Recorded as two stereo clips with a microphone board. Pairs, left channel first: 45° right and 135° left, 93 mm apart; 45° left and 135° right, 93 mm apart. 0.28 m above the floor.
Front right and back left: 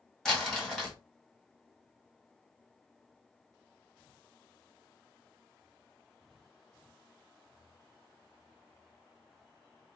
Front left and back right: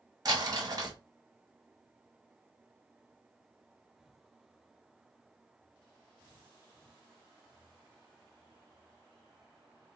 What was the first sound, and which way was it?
Crumpling, 130° right.